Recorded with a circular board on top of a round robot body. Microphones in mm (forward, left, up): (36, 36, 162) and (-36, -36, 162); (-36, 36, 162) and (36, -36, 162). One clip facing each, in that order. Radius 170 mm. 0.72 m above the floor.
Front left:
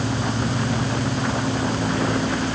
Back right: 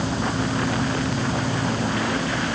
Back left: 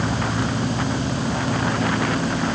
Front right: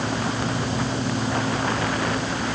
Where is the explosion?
I don't hear an explosion.